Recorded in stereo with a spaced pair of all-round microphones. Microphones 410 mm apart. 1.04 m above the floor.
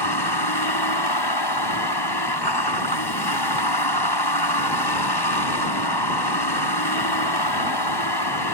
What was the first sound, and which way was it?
A vehicle, 70° left (ahead or behind).